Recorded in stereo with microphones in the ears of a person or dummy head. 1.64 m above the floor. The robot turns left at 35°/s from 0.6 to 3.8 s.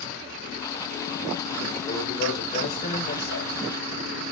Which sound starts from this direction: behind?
A man speaking, at 1.9 s.